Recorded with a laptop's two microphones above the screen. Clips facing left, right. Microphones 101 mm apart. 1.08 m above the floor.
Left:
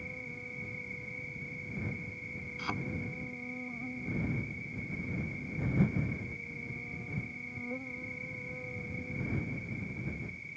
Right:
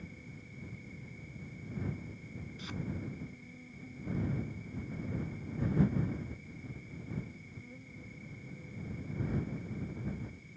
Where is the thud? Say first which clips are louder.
Left 8 dB; 65° left (ahead or behind).